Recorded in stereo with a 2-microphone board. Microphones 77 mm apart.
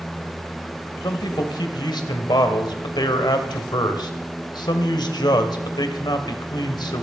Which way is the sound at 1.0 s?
70° left (ahead or behind).